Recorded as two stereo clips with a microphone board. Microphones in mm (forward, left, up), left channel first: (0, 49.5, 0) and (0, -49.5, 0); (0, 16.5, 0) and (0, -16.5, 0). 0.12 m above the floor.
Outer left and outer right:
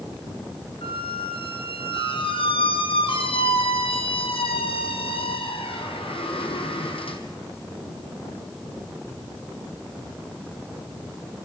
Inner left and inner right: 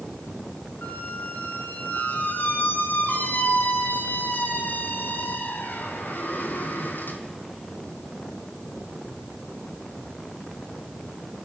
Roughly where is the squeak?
Left.